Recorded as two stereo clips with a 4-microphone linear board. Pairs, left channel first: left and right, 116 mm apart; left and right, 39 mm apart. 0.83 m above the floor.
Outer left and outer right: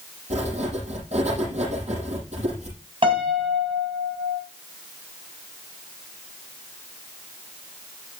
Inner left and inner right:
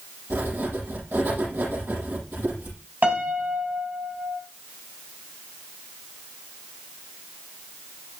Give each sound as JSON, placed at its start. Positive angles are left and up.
{"t": 0.3, "sound": "writing", "side_deg": -80, "distance_m": 7.5}
{"t": 3.0, "sound": "a piano", "side_deg": -50, "distance_m": 2.5}